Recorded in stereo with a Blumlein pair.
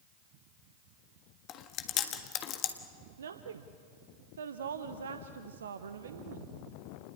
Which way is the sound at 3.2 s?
65° right.